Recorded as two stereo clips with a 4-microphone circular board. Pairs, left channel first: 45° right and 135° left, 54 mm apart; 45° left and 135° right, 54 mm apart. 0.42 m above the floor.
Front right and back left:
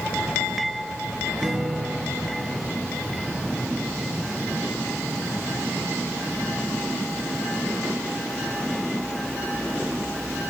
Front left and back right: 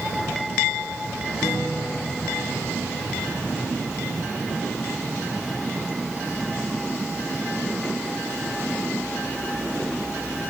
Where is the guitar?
60° left, 6.5 m.